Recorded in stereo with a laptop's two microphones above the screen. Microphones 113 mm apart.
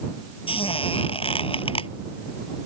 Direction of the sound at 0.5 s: 55° left (ahead or behind).